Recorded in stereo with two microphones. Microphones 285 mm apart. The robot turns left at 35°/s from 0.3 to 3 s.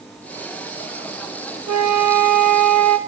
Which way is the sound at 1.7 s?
70° right.